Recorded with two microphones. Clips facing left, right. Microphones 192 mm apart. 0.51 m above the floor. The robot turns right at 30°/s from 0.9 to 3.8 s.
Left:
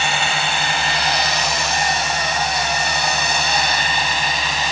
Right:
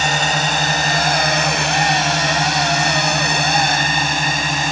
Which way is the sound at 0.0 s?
40° right (ahead or behind).